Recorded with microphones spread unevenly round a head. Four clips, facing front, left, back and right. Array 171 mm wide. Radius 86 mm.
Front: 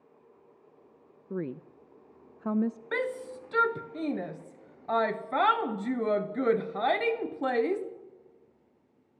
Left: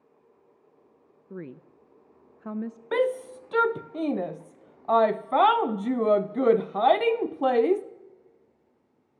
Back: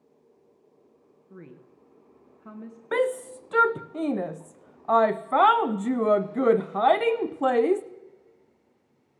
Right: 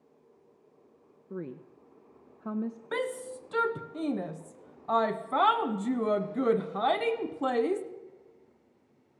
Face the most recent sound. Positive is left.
turn(degrees=125)